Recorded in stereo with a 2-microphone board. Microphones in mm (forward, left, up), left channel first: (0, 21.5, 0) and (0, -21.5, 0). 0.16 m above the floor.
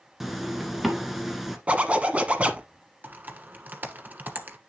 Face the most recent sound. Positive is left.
turn(degrees=-40)  # may be behind; listen again after turning